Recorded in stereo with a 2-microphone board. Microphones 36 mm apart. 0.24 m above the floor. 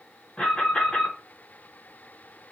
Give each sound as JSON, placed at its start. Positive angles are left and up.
{"t": 0.4, "sound": "an alarm", "side_deg": 35, "distance_m": 1.4}